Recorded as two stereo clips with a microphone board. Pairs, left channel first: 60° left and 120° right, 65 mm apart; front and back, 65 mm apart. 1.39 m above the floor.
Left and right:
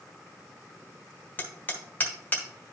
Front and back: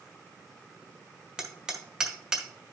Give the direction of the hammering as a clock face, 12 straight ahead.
8 o'clock.